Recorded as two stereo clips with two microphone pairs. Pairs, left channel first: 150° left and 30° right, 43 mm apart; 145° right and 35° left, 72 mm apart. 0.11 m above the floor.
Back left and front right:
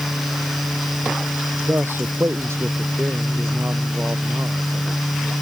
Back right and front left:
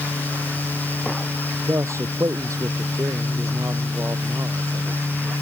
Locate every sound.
1.7 s a man speaking: 10° right